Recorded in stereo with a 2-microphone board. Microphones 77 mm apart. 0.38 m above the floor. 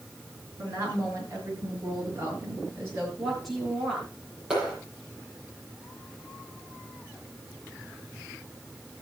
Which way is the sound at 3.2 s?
Centre (ahead or behind).